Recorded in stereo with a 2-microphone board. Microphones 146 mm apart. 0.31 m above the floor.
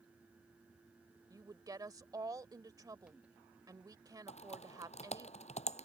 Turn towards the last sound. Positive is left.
turn(degrees=50)  # may be behind; listen again after turning